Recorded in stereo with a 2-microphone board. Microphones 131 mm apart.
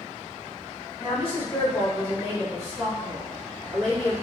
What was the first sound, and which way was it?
A woman speaking, 45° left (ahead or behind).